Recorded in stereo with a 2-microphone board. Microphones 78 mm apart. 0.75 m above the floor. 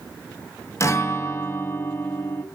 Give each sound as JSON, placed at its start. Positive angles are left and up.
{"t": 0.8, "sound": "a guitar", "side_deg": 35, "distance_m": 0.5}